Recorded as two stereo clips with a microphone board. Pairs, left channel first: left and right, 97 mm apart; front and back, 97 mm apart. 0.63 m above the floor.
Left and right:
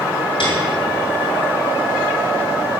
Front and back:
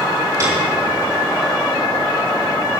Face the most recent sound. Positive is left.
turn(degrees=120)